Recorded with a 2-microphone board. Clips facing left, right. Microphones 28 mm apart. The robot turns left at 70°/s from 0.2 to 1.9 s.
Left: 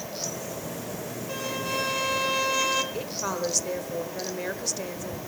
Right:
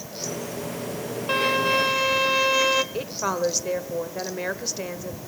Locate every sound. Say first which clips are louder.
1.3 s a violin: right 10 dB; 120° right, 1.0 m; by 2.8 s 165° right, 1.0 m
2.9 s a woman speaking: right 4 dB; 20° right (ahead or behind), 1.2 m